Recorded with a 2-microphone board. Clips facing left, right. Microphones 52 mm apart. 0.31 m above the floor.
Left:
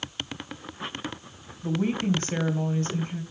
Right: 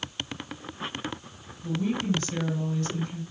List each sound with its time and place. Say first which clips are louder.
1.6 s a woman speaking: left 2 dB; 40° left (ahead or behind), 1.9 m